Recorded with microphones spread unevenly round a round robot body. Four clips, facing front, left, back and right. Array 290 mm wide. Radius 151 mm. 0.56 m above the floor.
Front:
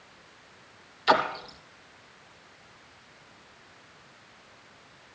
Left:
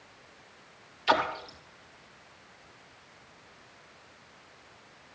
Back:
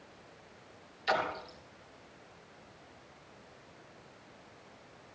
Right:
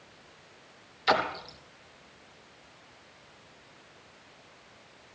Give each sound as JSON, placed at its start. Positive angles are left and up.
{"t": 1.1, "sound": "a splash", "azimuth_deg": -40, "distance_m": 2.5}